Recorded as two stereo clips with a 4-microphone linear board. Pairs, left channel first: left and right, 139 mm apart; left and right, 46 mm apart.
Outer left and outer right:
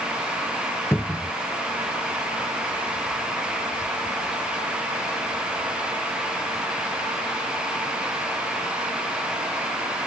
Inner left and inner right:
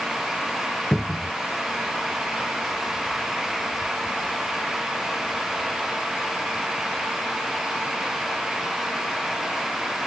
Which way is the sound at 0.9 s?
15° left (ahead or behind).